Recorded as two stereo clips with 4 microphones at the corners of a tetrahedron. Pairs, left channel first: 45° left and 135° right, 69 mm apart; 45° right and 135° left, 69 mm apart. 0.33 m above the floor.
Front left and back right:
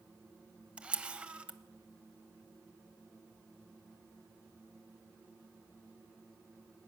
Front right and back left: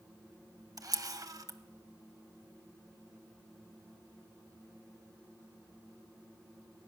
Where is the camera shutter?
155° left, 0.6 m.